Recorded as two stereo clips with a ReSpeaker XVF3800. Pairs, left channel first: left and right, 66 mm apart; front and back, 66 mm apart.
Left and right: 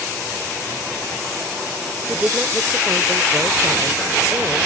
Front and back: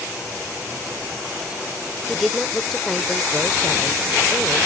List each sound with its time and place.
2.1 s a woman speaking: 85° right